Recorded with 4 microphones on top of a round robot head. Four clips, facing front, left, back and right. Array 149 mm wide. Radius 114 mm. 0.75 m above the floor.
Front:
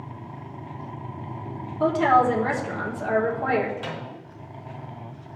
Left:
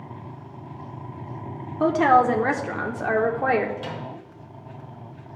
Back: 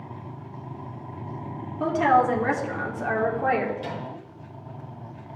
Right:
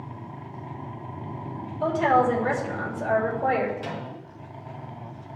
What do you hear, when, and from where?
1.8 s a woman speaking: 80° left, 1.7 m
3.8 s a microwave: 30° left, 3 m